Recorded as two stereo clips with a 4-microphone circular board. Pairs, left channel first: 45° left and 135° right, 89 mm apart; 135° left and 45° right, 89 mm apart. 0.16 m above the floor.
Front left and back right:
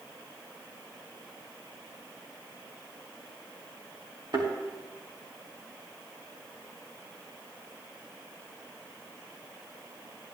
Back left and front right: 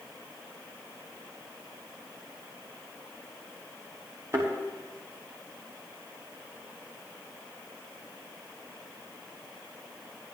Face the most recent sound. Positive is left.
turn(degrees=-100)